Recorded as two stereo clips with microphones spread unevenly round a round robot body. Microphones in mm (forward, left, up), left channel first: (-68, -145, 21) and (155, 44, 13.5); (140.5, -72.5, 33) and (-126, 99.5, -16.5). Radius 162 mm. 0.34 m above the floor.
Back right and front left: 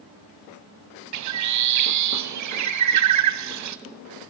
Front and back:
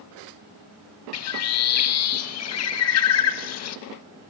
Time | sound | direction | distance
1.1 | a bird | 15° left | 1.1 m